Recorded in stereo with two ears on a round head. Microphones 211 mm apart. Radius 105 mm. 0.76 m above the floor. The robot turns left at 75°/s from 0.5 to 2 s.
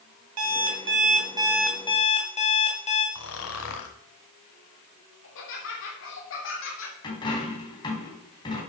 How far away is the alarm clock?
About 2.5 m.